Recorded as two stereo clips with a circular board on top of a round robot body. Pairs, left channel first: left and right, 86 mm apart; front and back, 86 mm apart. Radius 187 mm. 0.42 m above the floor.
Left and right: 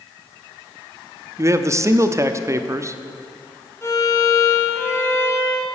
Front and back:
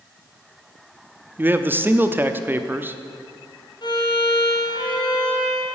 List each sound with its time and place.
1.4 s a man speaking: 125° right, 1.1 m
3.8 s a violin: 30° left, 2.5 m